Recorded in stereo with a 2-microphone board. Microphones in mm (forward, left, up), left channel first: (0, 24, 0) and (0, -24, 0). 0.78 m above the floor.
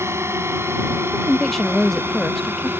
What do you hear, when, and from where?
0.0 s a drone: 70° right (ahead or behind); by 2.8 s 55° right (ahead or behind)
1.0 s a woman speaking: 10° left (ahead or behind)